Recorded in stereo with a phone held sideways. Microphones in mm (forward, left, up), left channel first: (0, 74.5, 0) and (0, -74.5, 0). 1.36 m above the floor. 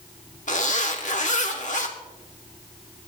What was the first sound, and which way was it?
A zipper, 55° left (ahead or behind).